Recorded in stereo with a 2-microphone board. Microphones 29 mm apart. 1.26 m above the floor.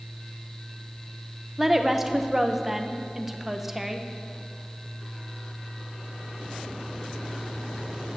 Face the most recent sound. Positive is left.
turn(degrees=-10)  # may be behind; listen again after turning